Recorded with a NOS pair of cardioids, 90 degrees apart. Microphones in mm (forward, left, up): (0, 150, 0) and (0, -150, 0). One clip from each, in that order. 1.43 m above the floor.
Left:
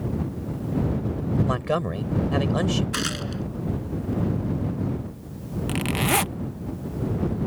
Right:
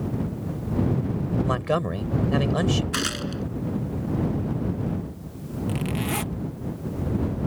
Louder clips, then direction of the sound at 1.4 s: Right 1 dB; straight ahead.